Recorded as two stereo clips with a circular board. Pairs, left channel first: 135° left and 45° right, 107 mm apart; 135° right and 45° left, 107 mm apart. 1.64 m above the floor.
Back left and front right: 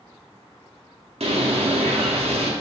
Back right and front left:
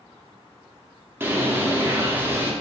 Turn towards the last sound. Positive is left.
turn(degrees=-25)